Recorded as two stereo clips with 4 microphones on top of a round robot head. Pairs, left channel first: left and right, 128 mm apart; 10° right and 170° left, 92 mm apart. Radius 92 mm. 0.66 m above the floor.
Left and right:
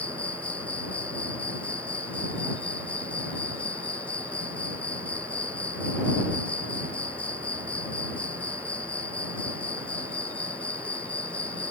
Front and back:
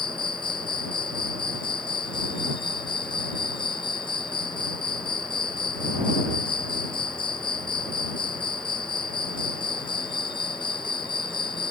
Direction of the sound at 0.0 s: 10° left.